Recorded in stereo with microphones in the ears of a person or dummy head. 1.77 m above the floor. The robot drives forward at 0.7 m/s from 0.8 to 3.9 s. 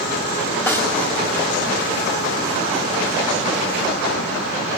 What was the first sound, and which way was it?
A snare drum, 10° left (ahead or behind).